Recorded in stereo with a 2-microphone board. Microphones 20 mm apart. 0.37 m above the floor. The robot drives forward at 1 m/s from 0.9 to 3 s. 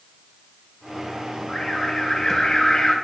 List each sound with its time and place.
1.5 s an alarm: 20° left (ahead or behind), 3.5 m; by 3.0 s 30° left (ahead or behind), 2.5 m